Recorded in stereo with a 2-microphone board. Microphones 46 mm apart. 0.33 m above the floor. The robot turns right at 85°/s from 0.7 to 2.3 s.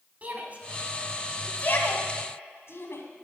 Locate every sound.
0.2 s a shout: 35° right (ahead or behind), 2 m; by 3.0 s 65° left (ahead or behind), 2 m